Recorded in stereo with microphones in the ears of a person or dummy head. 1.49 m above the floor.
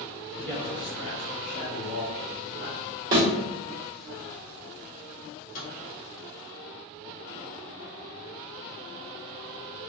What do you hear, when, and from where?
0.3 s a man speaking: 5° left (ahead or behind), 0.8 m; by 3.0 s 75° left (ahead or behind), 1.5 m
3.1 s a thud: 20° right (ahead or behind), 1.3 m
5.2 s a microwave: 50° left (ahead or behind), 1.4 m